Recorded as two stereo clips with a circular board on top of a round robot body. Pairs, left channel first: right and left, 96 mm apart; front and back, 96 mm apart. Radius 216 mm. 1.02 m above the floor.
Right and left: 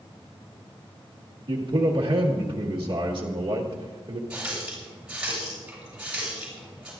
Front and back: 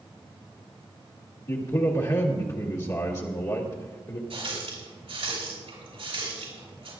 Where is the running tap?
170° left, 7 m.